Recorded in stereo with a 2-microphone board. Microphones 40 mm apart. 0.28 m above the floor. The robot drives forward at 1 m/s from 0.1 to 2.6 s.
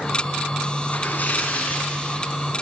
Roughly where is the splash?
Left.